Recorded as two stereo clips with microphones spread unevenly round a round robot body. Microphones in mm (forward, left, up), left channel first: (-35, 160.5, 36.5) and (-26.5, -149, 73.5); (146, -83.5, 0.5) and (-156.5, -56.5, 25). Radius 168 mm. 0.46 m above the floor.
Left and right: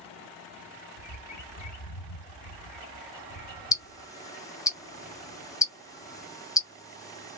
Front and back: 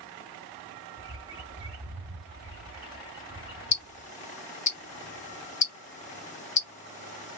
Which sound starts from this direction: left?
A bird, at 1.0 s.